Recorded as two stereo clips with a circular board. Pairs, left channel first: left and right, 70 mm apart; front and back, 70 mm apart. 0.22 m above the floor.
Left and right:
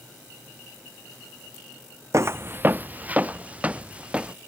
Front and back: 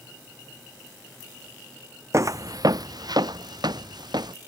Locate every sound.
2.1 s footsteps: 130° right; by 4.3 s 160° right